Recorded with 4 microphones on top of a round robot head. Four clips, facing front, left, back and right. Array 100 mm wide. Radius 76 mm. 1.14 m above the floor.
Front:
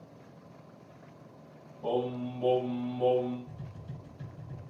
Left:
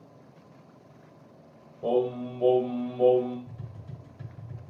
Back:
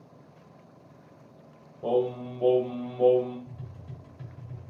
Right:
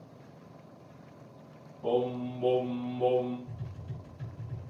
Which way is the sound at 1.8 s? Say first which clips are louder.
Left 3 dB, back 5 dB; 125° left.